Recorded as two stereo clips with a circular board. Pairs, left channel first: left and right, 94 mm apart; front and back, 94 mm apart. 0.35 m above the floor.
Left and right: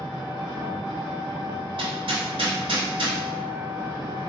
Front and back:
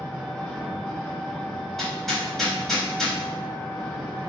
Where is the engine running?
80° right, 1.5 m.